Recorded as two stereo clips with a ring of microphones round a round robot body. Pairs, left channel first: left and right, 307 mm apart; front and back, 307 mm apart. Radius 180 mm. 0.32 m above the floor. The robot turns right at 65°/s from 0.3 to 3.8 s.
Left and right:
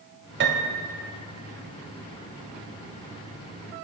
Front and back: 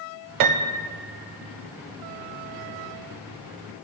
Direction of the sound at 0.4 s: 150° right.